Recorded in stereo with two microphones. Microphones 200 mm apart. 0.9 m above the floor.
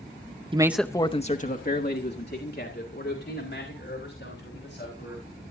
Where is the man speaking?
25° right (ahead or behind), 0.6 m; by 5.3 s 65° left (ahead or behind), 5 m.